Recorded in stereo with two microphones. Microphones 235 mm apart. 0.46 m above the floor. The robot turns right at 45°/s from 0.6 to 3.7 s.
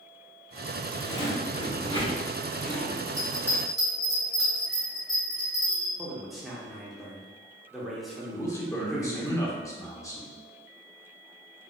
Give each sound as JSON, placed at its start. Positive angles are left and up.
{"t": 1.0, "sound": "a zipper", "side_deg": 25, "distance_m": 1.3}
{"t": 3.2, "sound": "a bell", "side_deg": 20, "distance_m": 1.5}
{"t": 6.0, "sound": "a man speaking", "side_deg": 0, "distance_m": 0.9}
{"t": 8.3, "sound": "a man speaking", "side_deg": 15, "distance_m": 0.8}